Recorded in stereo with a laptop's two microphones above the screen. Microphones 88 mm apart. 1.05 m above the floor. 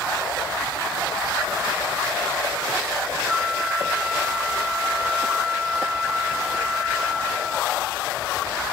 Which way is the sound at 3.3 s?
10° right (ahead or behind).